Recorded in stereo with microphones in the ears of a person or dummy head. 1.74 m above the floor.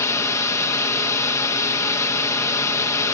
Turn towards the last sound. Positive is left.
turn(degrees=10)  # may be behind; listen again after turning